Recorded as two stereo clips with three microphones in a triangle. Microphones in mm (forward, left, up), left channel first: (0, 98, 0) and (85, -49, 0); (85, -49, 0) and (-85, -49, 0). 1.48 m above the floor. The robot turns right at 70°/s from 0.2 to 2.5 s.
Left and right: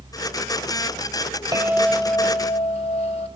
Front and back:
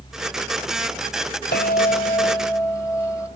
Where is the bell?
5° left, 3.5 m; by 3.3 s 70° left, 3.5 m.